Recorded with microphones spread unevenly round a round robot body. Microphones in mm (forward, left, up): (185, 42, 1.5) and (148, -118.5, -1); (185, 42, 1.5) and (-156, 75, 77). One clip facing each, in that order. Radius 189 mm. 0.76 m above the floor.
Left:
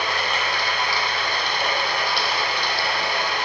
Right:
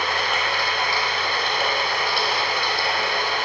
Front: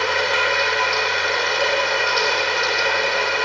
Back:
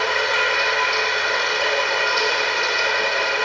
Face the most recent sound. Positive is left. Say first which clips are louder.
# right 1 dB, front 1 dB
turn(degrees=-60)